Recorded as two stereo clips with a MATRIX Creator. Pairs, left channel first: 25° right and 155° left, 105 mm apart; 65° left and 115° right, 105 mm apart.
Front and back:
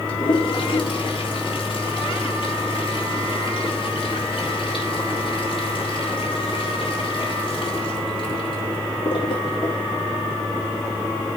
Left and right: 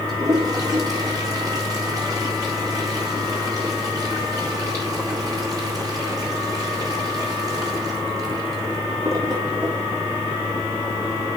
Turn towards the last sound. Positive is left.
turn(degrees=-60)